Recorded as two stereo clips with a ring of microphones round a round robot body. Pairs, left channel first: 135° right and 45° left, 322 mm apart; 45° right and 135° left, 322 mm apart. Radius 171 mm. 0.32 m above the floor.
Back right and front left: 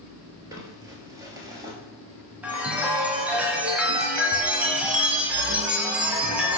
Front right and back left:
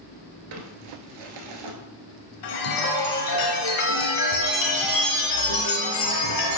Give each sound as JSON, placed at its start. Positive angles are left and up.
{"t": 0.5, "sound": "crumpling", "azimuth_deg": 125, "distance_m": 1.1}
{"t": 2.4, "sound": "a chime", "azimuth_deg": -40, "distance_m": 1.2}